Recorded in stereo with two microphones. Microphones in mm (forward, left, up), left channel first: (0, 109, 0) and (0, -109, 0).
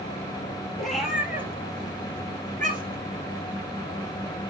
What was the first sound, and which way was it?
A cat meowing, 5° left (ahead or behind).